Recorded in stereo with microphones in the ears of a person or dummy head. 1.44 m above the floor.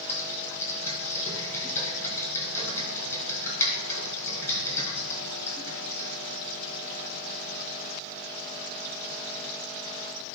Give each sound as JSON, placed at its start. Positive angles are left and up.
{"t": 0.1, "sound": "typing on a keyboard", "side_deg": 20, "distance_m": 2.5}